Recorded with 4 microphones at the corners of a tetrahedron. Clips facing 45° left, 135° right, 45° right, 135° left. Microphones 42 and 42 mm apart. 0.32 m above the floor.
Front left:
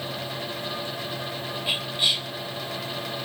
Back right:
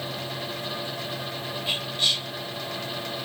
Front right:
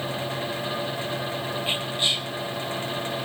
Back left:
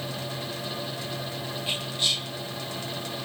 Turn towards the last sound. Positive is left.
turn(degrees=-20)